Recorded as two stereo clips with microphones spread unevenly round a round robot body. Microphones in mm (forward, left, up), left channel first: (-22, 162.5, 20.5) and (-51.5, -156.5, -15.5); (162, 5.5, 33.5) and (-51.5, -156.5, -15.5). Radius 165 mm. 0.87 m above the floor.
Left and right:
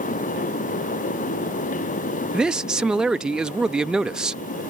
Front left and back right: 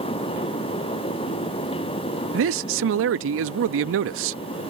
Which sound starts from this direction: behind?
A man speaking, at 2.3 s.